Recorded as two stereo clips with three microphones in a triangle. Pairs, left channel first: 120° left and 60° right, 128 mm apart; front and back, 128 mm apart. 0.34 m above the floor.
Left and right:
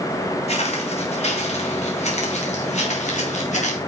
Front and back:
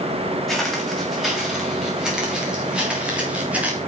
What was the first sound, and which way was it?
Footsteps, 90° left.